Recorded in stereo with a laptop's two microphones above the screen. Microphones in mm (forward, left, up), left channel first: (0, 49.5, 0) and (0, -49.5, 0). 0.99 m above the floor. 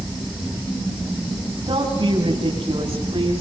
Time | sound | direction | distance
1.7 | a woman speaking | 60° right (ahead or behind) | 8 m